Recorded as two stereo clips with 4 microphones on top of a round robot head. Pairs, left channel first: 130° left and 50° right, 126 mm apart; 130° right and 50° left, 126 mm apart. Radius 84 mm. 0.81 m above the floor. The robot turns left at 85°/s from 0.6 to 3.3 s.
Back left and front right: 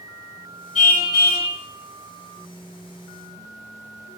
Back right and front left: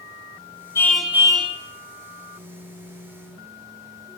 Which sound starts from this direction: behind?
A car horn, at 0.8 s.